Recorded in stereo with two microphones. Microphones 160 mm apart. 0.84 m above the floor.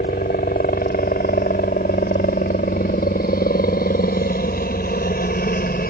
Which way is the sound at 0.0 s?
65° left (ahead or behind).